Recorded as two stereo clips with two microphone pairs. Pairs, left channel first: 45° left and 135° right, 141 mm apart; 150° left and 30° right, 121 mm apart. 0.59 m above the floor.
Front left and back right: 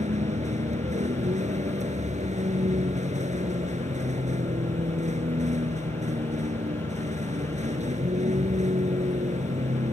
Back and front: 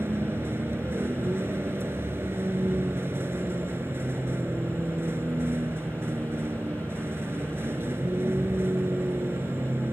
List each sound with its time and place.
0.0 s a vehicle: 100° right